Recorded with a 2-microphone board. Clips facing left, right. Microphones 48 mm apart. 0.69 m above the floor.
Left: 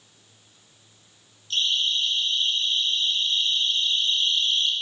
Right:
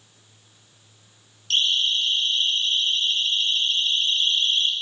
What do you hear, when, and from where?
1.5 s a siren: 75° right (ahead or behind), 5.5 m; by 4.7 s 45° right (ahead or behind), 4 m